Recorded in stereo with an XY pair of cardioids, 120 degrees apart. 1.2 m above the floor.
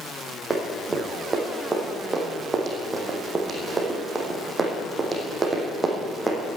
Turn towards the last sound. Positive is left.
turn(degrees=-20)